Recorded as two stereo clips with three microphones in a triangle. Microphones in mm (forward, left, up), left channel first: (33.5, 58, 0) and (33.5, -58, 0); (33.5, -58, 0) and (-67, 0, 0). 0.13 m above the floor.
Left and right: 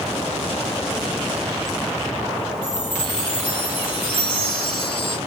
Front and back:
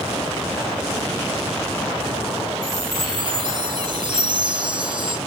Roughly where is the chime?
Behind left.